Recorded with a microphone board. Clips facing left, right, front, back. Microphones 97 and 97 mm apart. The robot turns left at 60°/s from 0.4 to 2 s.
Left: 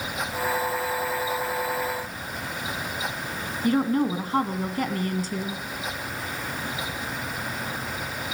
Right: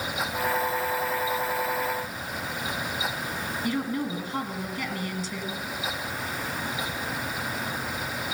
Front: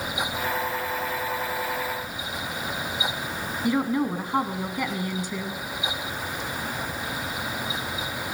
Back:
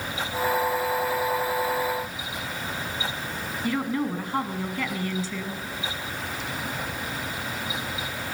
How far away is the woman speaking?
About 1.6 m.